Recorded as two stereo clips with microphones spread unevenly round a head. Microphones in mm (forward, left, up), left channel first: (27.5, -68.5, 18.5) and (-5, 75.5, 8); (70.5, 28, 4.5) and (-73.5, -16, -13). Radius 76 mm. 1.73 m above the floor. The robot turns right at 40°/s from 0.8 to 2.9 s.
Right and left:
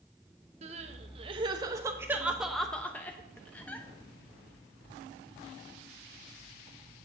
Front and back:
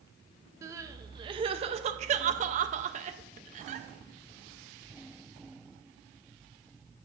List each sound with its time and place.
0.6 s crying: 130° left, 0.7 m; by 3.9 s 150° right, 0.7 m